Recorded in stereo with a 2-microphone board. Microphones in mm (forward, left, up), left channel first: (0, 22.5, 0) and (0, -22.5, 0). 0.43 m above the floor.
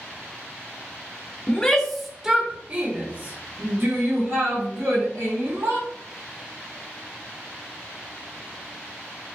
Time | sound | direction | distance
1.5 | a shout | 20° left (ahead or behind) | 0.9 m